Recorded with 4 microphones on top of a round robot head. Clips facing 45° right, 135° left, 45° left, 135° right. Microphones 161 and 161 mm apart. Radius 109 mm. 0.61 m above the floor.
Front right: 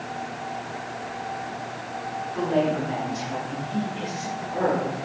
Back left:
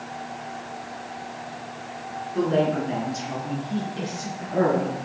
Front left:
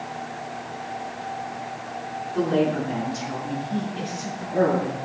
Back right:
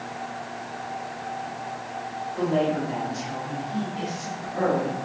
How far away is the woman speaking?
About 8 m.